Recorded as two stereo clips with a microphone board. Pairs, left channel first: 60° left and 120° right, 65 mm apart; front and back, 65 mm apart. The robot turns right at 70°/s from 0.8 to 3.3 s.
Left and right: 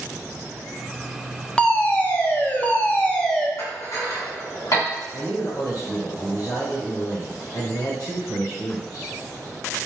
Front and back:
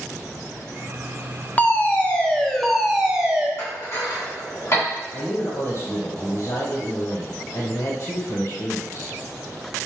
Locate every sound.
1.6 s a fire alarm: 5° left, 0.6 m; by 3.5 s 125° left, 0.6 m
3.6 s dishes clattering: 45° left, 2 m
5.1 s a man speaking: 40° left, 1.0 m